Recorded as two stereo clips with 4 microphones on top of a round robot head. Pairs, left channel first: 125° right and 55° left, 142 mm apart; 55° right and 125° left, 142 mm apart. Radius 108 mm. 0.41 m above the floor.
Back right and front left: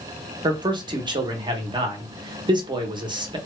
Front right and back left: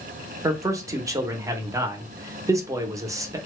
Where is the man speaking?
75° left, 0.8 m.